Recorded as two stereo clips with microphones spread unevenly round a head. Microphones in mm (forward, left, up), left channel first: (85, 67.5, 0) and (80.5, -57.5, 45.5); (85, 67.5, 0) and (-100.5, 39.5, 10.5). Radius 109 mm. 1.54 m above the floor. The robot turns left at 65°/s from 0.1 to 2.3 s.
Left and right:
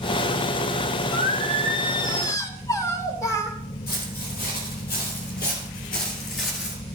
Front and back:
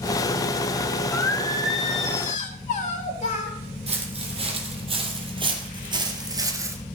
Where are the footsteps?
135° left, 4 m; by 6.8 s 130° left, 1.8 m.